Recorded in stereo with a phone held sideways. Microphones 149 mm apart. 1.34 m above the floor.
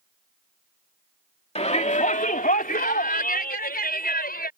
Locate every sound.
1.6 s a shout: 45° left (ahead or behind); by 4.5 s 90° left